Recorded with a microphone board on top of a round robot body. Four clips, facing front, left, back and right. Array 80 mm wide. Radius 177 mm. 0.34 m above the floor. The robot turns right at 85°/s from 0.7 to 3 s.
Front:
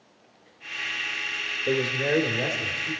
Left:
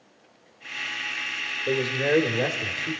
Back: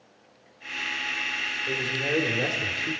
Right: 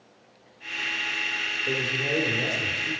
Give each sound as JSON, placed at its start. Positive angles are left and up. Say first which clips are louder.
{"t": 1.7, "sound": "a man speaking", "louder": "left 6 dB, front 6 dB", "azimuth_deg": 30, "distance_m": 2.5}